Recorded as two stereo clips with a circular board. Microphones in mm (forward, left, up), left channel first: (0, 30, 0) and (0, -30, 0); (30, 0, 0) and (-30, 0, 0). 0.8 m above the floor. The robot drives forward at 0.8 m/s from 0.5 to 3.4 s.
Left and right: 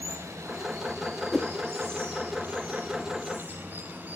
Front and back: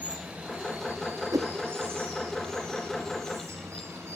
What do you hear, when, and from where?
0.0 s running water: 115° right, 2.5 m; by 4.2 s 145° right, 4.5 m
1.3 s a whoosh: straight behind, 0.5 m